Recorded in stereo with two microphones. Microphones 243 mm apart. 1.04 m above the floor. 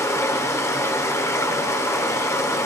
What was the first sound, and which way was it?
Running water, 10° left (ahead or behind).